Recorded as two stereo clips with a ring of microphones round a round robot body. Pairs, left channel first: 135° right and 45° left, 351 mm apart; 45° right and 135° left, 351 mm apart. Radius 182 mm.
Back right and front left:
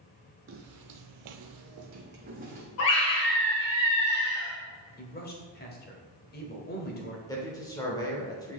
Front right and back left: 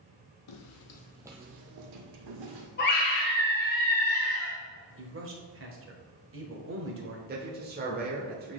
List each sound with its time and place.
0.5 s footsteps: 10° right, 1.0 m; by 2.7 s 115° left, 1.8 m
2.8 s a scream: 100° right, 1.5 m
5.0 s a man speaking: 170° left, 1.3 m
7.3 s a man speaking: 155° left, 1.0 m